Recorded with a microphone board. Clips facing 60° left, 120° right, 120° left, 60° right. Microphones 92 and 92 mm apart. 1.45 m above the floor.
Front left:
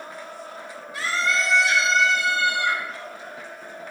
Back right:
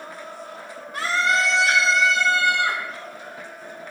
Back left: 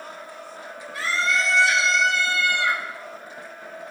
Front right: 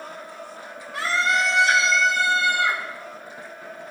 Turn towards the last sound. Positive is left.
turn(degrees=-115)